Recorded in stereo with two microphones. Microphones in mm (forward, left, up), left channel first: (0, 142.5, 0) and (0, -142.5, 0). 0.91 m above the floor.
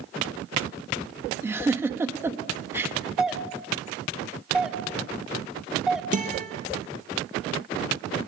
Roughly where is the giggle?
Centre.